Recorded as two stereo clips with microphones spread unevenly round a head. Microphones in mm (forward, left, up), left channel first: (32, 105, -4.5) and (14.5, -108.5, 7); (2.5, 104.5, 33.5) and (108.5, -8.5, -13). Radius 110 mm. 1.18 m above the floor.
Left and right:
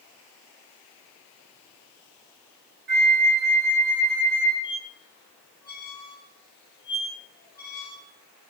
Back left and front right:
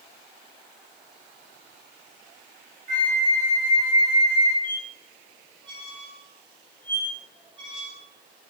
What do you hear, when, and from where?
2.9 s a flute: 55° right, 0.8 m
4.6 s a squeak: 20° left, 1.2 m